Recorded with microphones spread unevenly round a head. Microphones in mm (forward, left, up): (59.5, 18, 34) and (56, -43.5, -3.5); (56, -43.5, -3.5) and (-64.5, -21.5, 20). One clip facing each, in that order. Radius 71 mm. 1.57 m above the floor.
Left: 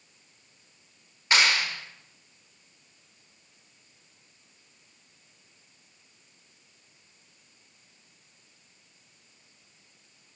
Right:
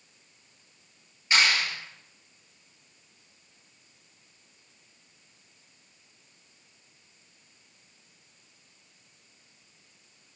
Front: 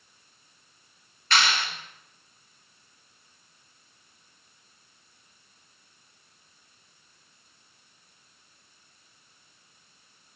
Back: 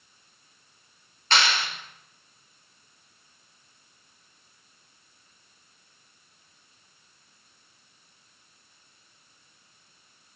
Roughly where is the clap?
Left.